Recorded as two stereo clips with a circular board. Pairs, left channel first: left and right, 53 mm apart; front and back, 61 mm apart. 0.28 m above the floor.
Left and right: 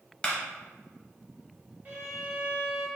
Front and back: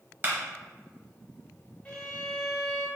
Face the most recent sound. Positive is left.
turn(degrees=-60)